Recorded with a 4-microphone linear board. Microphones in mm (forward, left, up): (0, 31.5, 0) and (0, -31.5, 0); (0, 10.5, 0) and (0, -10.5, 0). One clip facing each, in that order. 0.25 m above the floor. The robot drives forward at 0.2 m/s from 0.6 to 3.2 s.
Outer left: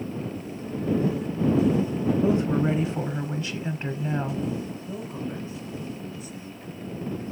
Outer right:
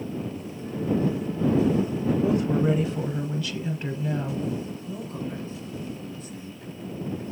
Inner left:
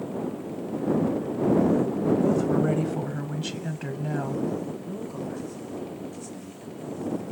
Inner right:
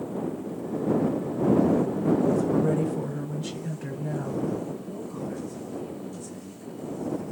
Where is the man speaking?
10° left (ahead or behind), 1.5 m.